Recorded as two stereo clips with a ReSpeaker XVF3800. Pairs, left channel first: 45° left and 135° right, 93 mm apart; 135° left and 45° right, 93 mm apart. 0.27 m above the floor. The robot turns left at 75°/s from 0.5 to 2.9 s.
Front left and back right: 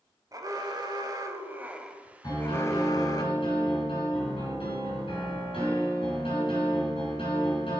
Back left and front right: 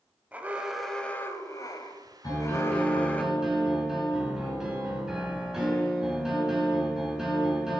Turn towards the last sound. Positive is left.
turn(degrees=40)